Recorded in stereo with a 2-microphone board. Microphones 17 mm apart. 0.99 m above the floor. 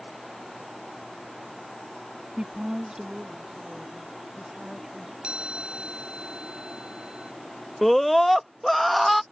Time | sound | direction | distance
2.4 | a woman speaking | 55° right (ahead or behind) | ?
5.2 | a chime | 70° right (ahead or behind) | ?
7.8 | a scream | 10° left (ahead or behind) | ?